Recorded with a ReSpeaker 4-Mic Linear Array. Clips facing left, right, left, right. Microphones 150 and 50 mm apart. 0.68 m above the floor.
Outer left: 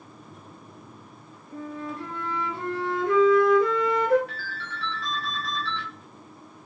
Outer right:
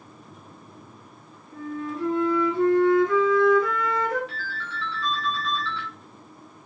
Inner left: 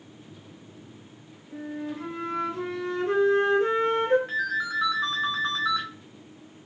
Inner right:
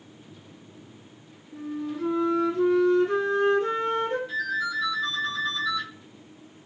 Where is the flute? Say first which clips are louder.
Outer right 3 dB, inner right 2 dB; 70° left (ahead or behind), 3 m.